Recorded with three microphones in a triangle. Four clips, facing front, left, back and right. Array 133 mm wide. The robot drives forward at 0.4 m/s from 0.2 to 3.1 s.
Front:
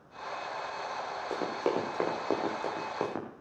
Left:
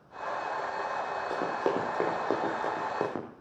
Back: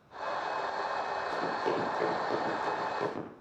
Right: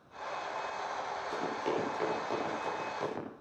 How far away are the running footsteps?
About 8.5 m.